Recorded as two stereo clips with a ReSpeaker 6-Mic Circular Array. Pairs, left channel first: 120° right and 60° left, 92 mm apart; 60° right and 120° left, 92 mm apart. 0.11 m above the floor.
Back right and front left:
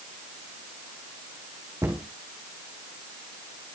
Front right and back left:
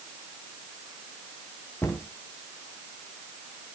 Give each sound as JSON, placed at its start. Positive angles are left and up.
{"t": 1.8, "sound": "a cupboard door", "azimuth_deg": 5, "distance_m": 4.5}